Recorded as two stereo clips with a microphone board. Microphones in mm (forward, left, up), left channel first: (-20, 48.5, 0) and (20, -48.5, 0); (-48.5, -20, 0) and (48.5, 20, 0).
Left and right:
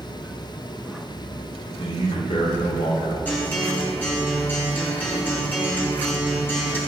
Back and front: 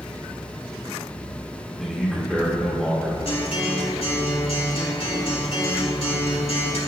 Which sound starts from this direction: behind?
A guitar, at 3.2 s.